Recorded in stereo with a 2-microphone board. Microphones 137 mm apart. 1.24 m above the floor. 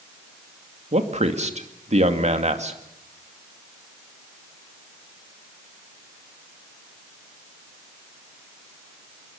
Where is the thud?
No thud in this recording.